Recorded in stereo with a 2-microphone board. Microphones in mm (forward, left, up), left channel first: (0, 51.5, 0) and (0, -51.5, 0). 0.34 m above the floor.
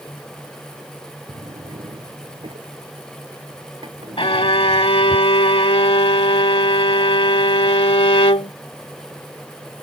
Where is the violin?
75° left (ahead or behind).